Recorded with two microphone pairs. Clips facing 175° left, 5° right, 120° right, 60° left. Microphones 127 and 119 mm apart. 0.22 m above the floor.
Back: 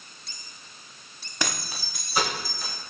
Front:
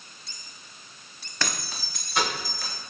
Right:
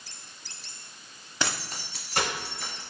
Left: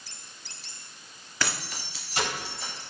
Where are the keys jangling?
140° right, 0.8 m; by 2.7 s 100° right, 2 m.